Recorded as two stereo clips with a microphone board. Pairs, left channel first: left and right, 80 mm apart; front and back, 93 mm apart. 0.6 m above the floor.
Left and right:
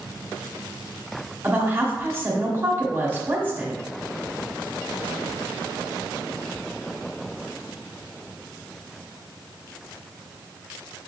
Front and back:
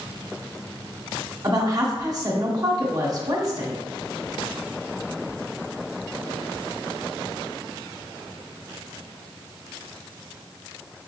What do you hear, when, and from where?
1.4 s a woman speaking: 145° right, 1.1 m